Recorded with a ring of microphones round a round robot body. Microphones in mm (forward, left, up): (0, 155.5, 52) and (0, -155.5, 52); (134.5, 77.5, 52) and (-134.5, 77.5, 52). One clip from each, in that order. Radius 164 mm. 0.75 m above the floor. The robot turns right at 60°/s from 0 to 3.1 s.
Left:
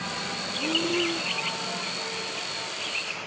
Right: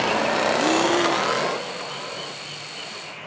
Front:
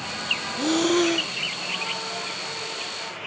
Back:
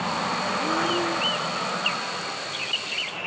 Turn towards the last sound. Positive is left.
turn(degrees=110)